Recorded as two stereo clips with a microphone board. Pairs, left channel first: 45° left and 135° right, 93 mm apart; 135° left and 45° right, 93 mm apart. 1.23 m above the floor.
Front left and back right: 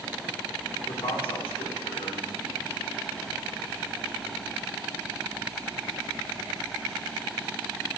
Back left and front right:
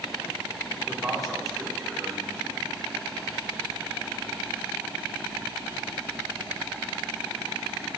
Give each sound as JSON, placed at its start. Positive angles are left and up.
{"t": 0.9, "sound": "a man speaking", "azimuth_deg": 45, "distance_m": 4.0}